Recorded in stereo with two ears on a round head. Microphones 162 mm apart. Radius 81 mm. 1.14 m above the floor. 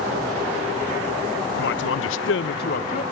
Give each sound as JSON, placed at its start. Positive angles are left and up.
{"t": 1.6, "sound": "a man speaking", "side_deg": 60, "distance_m": 0.9}